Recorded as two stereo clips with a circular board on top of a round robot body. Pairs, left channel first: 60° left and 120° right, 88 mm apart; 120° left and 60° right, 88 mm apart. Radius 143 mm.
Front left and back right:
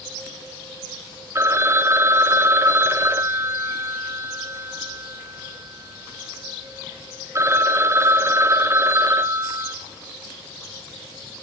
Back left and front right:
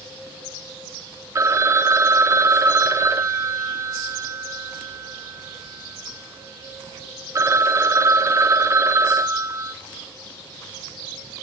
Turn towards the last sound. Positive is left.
turn(degrees=-85)